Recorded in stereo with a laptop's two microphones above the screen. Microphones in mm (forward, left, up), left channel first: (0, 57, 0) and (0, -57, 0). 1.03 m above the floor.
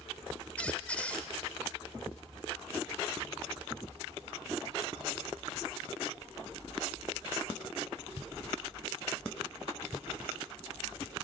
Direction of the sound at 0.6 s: 15° left (ahead or behind).